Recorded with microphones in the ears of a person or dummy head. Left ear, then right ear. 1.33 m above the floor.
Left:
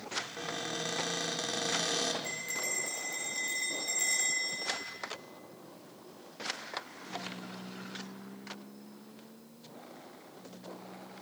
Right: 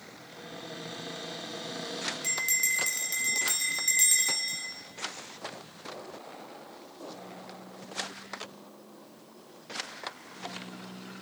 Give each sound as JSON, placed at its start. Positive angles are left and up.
{"t": 0.2, "sound": "a cupboard door", "side_deg": 80, "distance_m": 3.0}
{"t": 2.2, "sound": "a bell", "side_deg": -40, "distance_m": 4.0}